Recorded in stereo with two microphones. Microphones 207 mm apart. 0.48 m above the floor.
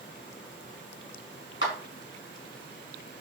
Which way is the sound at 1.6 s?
60° left (ahead or behind).